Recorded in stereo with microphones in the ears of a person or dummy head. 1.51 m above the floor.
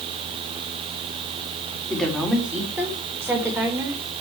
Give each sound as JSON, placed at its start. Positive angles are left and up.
{"t": 1.9, "sound": "a woman speaking", "side_deg": 0, "distance_m": 3.5}